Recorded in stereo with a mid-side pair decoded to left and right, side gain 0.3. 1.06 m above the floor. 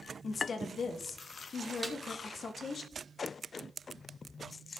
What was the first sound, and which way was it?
A woman speaking, 65° left.